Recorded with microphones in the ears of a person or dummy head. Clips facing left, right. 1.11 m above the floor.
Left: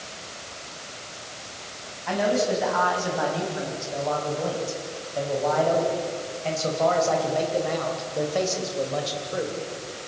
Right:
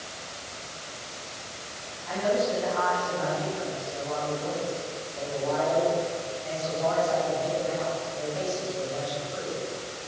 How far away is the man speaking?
About 9.5 m.